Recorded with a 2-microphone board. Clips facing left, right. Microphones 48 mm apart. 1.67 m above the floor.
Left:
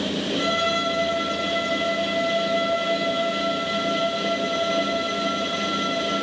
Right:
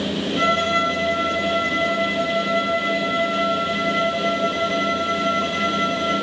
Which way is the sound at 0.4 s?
50° right (ahead or behind).